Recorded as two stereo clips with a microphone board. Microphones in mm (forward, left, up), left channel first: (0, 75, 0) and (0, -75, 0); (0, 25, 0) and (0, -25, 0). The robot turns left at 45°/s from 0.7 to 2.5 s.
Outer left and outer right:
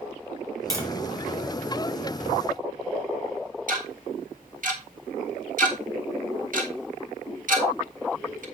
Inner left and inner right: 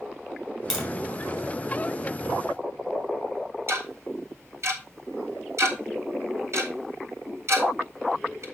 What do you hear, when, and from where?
0.7 s tapping: 25° right (ahead or behind), 2.5 m; by 0.9 s 15° right (ahead or behind), 2.5 m
3.7 s ticking: 60° right (ahead or behind), 1.7 m